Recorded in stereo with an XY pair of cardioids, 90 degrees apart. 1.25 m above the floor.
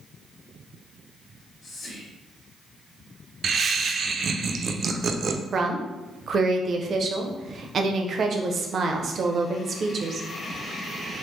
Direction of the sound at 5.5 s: 55° right.